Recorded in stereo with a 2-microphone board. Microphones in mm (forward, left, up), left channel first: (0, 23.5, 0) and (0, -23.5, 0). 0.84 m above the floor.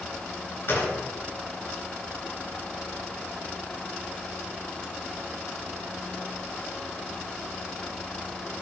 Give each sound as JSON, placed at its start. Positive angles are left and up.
{"t": 0.7, "sound": "a gunshot", "side_deg": 45, "distance_m": 3.0}